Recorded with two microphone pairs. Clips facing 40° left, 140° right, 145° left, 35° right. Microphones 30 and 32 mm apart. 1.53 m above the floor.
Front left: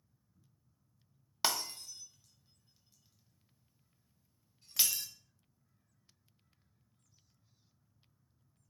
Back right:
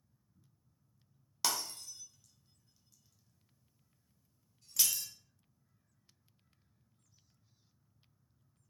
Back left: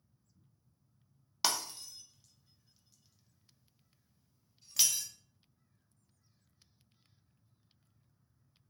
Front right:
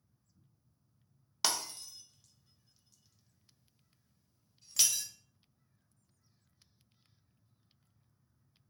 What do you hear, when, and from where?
1.4 s breaking glass: 65° left, 0.7 m